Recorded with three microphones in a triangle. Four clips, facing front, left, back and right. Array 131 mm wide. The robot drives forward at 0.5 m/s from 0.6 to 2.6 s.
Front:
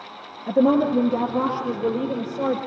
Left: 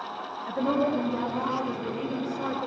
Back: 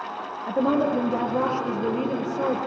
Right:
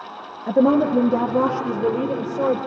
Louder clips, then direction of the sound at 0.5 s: Right 9 dB, front 4 dB; 85° right.